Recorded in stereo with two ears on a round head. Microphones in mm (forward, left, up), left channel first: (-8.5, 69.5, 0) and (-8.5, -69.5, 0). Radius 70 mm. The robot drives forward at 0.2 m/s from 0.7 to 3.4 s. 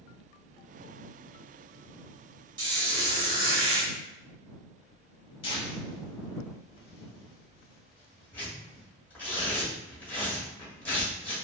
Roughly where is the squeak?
Right.